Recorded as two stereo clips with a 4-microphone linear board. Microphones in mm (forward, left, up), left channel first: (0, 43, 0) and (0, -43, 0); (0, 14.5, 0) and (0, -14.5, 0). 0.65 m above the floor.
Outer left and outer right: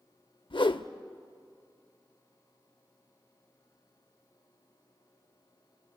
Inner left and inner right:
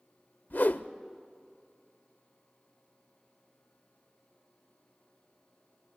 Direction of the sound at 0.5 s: 70° left (ahead or behind).